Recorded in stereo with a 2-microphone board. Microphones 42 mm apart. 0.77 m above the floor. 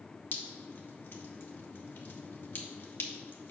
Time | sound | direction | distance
0.3 | dripping | 55° left (ahead or behind) | 1.1 m